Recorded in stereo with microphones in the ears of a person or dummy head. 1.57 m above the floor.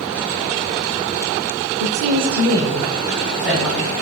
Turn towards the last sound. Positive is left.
turn(degrees=5)  # may be behind; listen again after turning